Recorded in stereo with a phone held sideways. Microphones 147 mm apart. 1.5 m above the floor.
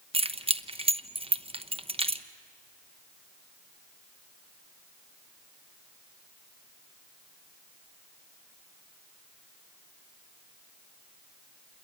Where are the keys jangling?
40° right (ahead or behind), 0.8 m.